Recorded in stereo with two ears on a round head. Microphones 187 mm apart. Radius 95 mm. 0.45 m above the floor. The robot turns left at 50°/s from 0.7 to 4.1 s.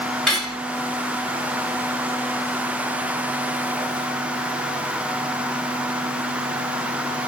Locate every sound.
0.3 s cutlery clinking: centre (ahead or behind), 1.7 m